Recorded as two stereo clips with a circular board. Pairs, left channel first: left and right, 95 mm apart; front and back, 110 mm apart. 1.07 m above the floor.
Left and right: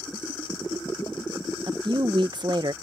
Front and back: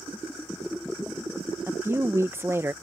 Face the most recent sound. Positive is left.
turn(degrees=-115)